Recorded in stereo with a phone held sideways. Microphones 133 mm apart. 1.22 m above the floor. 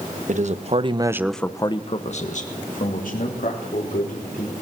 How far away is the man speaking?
About 1.9 m.